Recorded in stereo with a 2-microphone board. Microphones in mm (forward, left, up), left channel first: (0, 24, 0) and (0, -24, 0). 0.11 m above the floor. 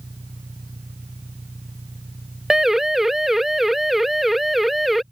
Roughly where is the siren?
Centre.